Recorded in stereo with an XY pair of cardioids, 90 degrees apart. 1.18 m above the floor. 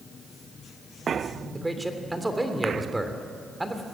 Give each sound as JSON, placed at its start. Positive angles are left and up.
{"t": 1.5, "sound": "a man speaking", "azimuth_deg": -15, "distance_m": 3.0}